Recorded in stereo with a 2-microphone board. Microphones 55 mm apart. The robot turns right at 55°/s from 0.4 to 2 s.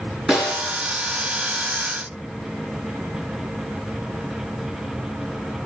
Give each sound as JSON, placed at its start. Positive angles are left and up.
{"t": 0.3, "sound": "a snare drum", "side_deg": -5, "distance_m": 4.5}